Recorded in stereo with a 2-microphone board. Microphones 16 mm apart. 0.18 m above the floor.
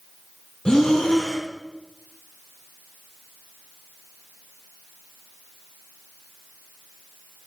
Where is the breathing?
50° left (ahead or behind), 2.5 m.